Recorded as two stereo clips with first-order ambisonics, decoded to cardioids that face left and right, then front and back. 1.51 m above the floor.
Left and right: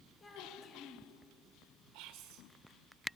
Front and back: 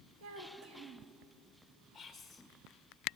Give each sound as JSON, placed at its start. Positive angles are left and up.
{"t": 0.2, "sound": "a child speaking", "azimuth_deg": 165, "distance_m": 1.9}
{"t": 1.9, "sound": "whispering", "azimuth_deg": -85, "distance_m": 1.8}